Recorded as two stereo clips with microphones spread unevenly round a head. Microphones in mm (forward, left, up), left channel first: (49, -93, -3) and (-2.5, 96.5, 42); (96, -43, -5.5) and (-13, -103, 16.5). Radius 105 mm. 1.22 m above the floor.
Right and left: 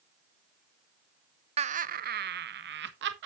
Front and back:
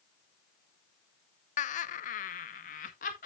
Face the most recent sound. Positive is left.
turn(degrees=70)